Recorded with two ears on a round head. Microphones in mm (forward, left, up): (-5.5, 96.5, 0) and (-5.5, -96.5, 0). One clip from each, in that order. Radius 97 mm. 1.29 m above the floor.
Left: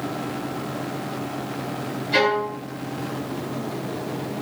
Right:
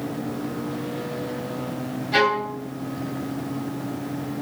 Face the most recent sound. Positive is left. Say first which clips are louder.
# even
turn(degrees=10)  # may be behind; listen again after turning